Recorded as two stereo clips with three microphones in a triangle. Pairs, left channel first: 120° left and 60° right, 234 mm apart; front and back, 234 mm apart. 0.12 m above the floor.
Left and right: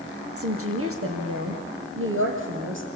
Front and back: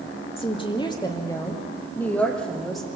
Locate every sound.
0.4 s a woman speaking: 65° right, 3 m; by 3.0 s 90° right, 3.5 m